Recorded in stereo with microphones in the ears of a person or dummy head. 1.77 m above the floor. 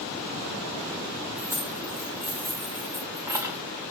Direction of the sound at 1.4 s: 15° right (ahead or behind).